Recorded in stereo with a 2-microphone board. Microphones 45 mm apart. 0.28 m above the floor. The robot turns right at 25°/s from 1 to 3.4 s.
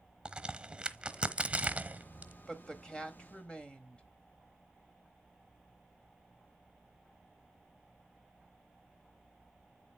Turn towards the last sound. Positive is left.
turn(degrees=25)  # may be behind; listen again after turning